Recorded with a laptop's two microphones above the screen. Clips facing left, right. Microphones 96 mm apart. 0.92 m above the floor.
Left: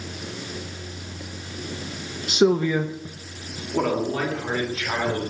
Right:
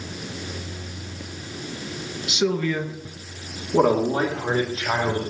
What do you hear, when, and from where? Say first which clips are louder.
2.3 s a man speaking: left 4 dB; 45° left (ahead or behind), 1.0 m; by 5.2 s 25° right (ahead or behind), 4 m